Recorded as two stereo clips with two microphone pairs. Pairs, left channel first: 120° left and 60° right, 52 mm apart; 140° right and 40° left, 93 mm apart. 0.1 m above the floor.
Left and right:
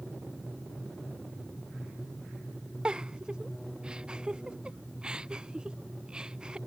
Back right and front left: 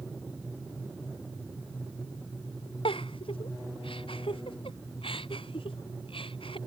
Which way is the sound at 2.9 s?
130° right.